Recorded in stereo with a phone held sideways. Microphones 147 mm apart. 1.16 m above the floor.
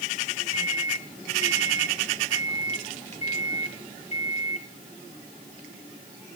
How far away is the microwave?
About 3 m.